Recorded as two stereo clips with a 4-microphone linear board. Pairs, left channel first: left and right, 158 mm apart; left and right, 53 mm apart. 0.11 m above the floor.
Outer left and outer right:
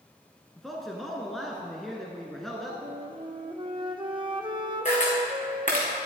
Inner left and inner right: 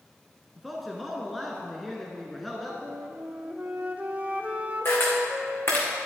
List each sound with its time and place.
0.6 s a man speaking: centre (ahead or behind), 1.1 m
2.8 s a flute: 30° right (ahead or behind), 0.9 m
4.8 s a camera shutter: 50° left (ahead or behind), 3 m